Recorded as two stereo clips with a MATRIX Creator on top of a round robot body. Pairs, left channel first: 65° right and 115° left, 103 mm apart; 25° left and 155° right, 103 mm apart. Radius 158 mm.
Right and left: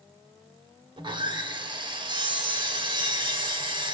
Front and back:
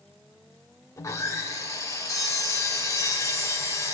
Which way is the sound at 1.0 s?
80° left.